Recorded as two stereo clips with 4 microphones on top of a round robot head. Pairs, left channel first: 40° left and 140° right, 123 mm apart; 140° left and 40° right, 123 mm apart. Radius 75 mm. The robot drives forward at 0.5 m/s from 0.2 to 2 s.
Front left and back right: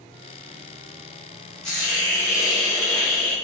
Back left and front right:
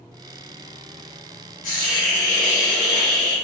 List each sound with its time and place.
1.6 s a hiss: 125° left, 1.2 m; by 3.4 s 130° left, 1.3 m